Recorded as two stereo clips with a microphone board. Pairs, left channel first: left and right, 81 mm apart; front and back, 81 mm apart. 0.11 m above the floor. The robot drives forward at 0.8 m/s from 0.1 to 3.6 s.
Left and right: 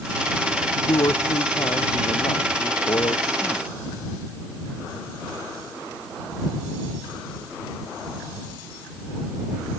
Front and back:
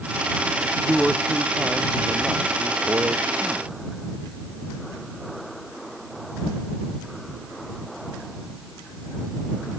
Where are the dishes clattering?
I don't hear dishes clattering.